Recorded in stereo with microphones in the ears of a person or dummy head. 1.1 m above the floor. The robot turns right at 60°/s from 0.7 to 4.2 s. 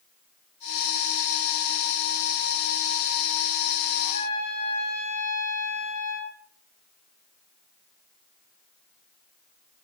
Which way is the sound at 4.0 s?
55° left (ahead or behind).